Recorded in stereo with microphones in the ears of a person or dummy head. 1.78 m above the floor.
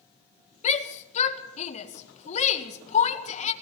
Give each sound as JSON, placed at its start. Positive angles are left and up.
{"t": 0.6, "sound": "a shout", "side_deg": 40, "distance_m": 1.9}